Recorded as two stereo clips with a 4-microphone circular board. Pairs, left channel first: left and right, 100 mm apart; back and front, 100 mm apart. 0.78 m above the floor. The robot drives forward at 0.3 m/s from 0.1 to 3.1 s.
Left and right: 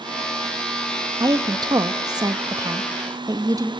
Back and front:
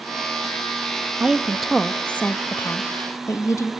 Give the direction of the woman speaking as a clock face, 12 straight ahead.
3 o'clock.